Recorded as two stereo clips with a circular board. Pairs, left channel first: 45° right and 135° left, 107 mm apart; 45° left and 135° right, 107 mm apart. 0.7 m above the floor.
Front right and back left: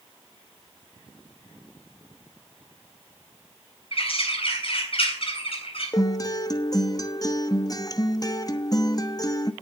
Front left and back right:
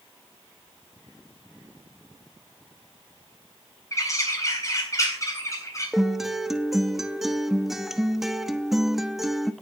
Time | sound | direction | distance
3.9 | a bird | 15° right | 3.5 m
5.9 | a guitar | 50° right | 0.9 m